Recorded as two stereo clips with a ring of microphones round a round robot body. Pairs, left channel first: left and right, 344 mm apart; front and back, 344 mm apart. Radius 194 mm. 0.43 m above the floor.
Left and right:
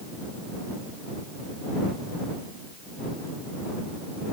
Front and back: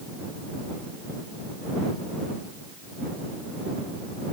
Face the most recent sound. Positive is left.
No sound to turn to.